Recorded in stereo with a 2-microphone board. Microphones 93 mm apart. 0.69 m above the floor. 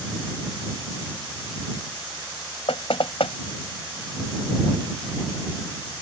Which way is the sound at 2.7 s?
80° left.